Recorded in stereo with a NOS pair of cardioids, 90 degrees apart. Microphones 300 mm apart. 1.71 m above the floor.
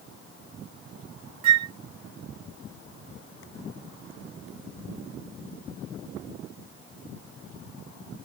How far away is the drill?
I don't hear a drill.